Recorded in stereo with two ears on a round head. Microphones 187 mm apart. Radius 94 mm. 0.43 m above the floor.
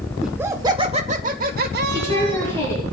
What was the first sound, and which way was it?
Laughter, 5° right (ahead or behind).